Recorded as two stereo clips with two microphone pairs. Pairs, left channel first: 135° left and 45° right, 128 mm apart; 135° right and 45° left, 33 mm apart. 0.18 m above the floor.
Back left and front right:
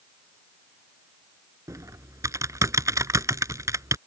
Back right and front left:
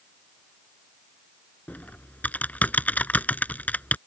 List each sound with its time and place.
1.7 s typing on a keyboard: 105° right